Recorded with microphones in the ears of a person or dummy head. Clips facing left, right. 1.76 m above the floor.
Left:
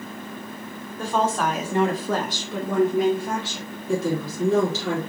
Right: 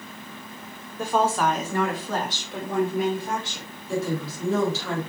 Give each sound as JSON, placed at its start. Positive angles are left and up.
{"t": 1.0, "sound": "a woman speaking", "side_deg": -15, "distance_m": 1.3}
{"t": 3.9, "sound": "a woman speaking", "side_deg": 75, "distance_m": 3.0}